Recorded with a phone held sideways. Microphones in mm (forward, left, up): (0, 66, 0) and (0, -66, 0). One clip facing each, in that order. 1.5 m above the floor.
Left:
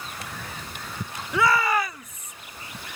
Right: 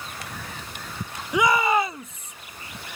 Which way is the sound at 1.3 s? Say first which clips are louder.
Right 2 dB; 15° right (ahead or behind).